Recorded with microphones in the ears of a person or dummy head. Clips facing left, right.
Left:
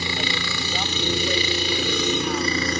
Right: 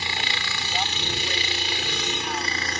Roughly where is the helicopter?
Left.